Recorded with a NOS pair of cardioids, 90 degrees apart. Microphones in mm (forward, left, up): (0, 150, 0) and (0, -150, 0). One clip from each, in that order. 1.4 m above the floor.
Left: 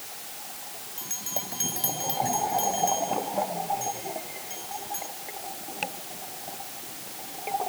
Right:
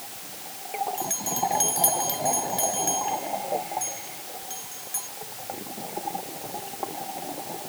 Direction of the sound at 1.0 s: 25° right.